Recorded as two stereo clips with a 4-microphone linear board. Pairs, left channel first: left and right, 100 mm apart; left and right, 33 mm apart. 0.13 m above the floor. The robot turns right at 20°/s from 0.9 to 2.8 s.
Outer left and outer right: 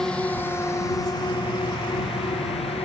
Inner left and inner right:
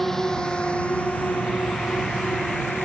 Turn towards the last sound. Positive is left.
turn(degrees=85)